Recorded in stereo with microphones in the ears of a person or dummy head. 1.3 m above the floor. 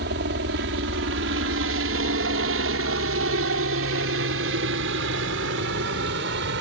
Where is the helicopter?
65° right (ahead or behind); by 6.6 s 60° right (ahead or behind).